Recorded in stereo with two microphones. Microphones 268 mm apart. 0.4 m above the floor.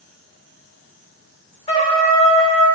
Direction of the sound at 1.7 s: 20° left (ahead or behind).